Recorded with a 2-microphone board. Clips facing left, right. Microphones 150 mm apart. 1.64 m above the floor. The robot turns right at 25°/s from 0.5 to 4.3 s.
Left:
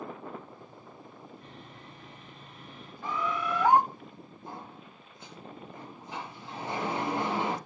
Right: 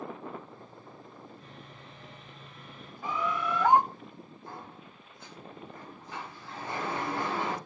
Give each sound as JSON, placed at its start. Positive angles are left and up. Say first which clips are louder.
{"t": 1.4, "sound": "sawing", "louder": "left 1 dB", "azimuth_deg": 110, "distance_m": 3.5}
{"t": 3.0, "sound": "a bird", "louder": "even", "side_deg": -10, "distance_m": 1.3}
{"t": 4.5, "sound": "a sliding door", "louder": "left 2 dB", "side_deg": 20, "distance_m": 0.6}